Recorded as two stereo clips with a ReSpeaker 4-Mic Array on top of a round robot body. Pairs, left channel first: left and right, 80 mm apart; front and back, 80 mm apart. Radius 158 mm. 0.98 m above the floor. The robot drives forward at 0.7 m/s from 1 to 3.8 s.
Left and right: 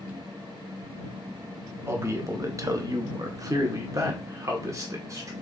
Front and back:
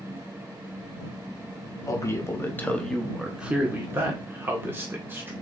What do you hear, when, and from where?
1.9 s a man speaking: 40° right, 1.3 m; by 5.3 s 125° right, 1.1 m